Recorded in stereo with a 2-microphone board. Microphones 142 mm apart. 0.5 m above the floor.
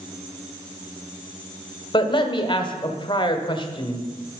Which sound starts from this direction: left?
A man speaking, at 1.9 s.